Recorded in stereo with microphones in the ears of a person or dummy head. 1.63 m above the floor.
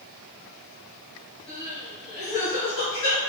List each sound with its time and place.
1.5 s crying: 35° left (ahead or behind), 1.7 m